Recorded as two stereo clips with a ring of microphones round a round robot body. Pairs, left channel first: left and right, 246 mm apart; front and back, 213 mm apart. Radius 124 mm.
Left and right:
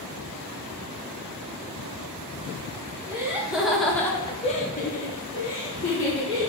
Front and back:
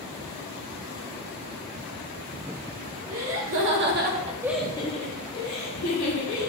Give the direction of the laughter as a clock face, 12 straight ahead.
6 o'clock.